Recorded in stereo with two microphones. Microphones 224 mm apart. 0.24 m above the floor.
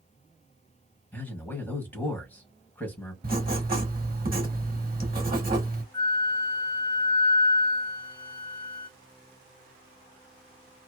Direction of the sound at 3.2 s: 40° right (ahead or behind).